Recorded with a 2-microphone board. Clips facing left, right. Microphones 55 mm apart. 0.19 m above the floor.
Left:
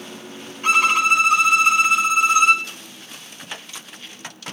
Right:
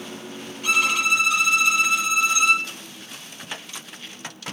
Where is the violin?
40° left (ahead or behind), 2.0 m.